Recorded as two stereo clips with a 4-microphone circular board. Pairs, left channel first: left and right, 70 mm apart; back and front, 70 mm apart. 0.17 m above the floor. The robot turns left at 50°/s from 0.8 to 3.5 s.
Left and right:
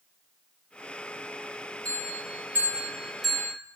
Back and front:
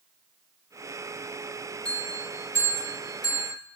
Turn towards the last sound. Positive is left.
turn(degrees=170)